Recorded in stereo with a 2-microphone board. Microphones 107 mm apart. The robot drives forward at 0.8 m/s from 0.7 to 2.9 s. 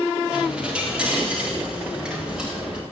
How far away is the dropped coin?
About 10 m.